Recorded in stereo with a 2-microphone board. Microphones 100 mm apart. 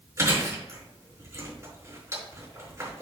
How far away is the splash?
No splash in this recording.